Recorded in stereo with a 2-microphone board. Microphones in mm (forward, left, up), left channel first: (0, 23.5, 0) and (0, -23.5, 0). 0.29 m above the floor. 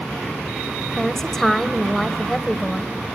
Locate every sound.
1.0 s a woman speaking: 5° left (ahead or behind), 1.2 m